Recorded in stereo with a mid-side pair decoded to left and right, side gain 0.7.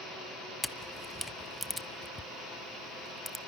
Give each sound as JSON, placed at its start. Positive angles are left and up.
{"t": 0.6, "sound": "a camera shutter", "azimuth_deg": 5, "distance_m": 0.6}